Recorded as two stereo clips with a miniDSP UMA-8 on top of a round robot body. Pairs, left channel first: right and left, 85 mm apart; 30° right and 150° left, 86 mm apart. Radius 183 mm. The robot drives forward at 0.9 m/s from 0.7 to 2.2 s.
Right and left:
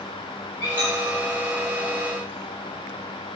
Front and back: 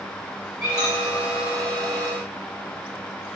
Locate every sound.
0.6 s a squeak: 125° right, 0.7 m; by 1.2 s 150° right, 1.0 m